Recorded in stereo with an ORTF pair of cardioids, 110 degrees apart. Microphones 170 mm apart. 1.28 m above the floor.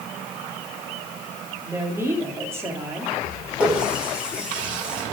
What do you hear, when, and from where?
1.6 s a woman speaking: 15° right, 2.5 m
3.6 s a running tap: 5° right, 3.5 m